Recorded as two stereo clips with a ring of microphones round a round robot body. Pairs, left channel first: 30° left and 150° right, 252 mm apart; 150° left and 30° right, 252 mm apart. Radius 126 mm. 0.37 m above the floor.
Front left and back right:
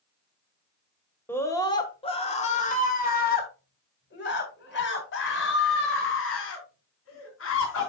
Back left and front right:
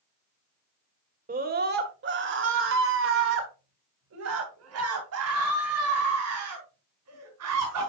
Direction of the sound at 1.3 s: 45° right.